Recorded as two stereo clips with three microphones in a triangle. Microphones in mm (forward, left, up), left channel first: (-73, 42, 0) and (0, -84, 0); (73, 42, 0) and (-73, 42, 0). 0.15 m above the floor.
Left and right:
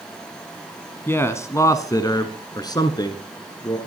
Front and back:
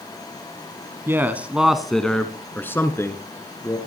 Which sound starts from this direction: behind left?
A man speaking, at 1.1 s.